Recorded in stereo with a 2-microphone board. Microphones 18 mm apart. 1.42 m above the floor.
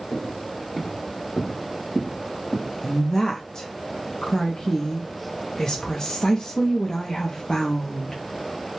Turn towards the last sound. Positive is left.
turn(degrees=40)  # may be behind; listen again after turning